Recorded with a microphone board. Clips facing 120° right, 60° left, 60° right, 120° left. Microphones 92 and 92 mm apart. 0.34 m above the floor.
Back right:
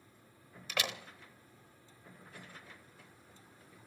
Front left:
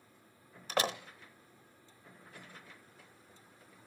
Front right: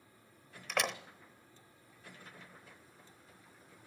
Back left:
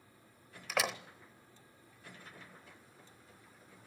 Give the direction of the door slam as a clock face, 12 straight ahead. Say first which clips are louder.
Front left 6 dB, even; 11 o'clock.